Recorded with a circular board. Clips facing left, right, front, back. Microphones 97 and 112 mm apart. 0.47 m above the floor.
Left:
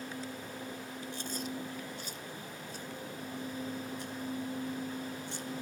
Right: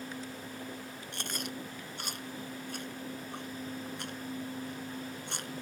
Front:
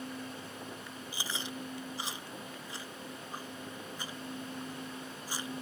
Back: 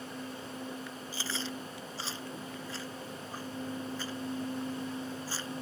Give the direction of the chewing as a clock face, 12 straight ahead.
2 o'clock.